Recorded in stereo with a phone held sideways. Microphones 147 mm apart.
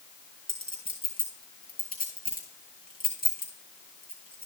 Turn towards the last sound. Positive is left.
turn(degrees=70)  # may be behind; listen again after turning